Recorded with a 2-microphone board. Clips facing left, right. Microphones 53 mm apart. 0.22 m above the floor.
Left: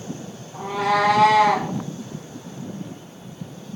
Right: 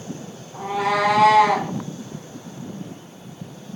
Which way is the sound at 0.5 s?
10° right (ahead or behind).